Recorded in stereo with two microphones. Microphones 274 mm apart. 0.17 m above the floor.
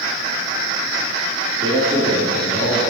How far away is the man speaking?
About 2 m.